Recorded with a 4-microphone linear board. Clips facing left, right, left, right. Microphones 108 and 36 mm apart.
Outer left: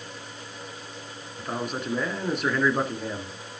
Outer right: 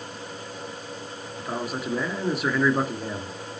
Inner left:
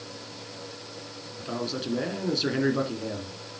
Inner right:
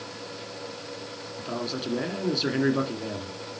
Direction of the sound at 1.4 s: 5° right (ahead or behind).